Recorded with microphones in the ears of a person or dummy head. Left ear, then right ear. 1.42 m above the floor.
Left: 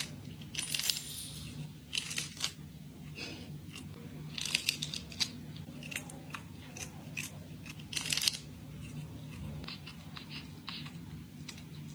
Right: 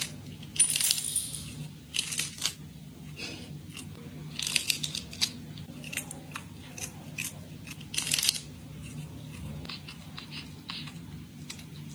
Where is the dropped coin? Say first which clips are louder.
Right 6 dB; 60° right (ahead or behind), 2.5 m.